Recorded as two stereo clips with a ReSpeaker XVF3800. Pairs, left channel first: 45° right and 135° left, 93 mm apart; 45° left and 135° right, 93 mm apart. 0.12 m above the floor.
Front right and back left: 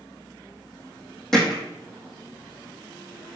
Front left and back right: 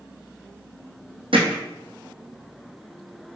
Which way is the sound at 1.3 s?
130° right.